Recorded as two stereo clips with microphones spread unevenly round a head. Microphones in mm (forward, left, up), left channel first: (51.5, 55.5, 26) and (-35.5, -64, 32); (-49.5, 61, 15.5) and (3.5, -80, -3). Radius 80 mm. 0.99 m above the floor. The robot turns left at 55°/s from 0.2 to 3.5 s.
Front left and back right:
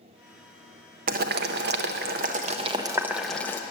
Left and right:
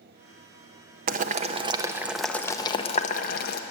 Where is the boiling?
95° right, 0.6 m; by 3.6 s 130° left, 0.6 m.